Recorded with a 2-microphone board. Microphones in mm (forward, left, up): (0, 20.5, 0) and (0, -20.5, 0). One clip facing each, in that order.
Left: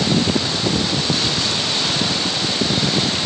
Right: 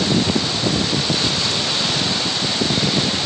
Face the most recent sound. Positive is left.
No sound to turn to.